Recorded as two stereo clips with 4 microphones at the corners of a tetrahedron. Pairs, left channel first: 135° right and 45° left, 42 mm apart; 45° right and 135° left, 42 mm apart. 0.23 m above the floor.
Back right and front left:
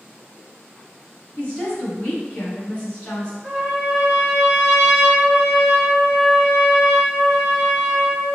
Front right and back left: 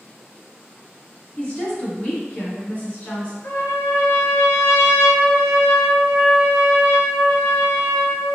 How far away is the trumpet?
About 1.8 m.